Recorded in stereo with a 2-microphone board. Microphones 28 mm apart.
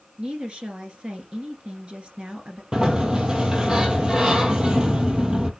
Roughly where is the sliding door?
Right.